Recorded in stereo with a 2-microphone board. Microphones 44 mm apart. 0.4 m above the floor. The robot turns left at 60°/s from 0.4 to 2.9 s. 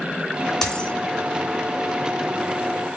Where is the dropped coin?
10° left (ahead or behind), 1.8 m; by 0.9 s 30° left (ahead or behind), 1.8 m.